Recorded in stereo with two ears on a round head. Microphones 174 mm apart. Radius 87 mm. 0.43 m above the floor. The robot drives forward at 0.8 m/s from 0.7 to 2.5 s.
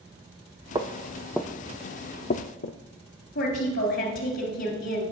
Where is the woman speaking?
60° left (ahead or behind), 2.5 m.